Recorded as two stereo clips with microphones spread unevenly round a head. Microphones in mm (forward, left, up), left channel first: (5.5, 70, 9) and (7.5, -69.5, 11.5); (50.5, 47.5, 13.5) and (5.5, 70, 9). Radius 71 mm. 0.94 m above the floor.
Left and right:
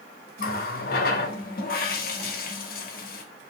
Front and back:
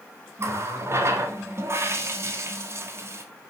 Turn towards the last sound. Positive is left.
turn(degrees=120)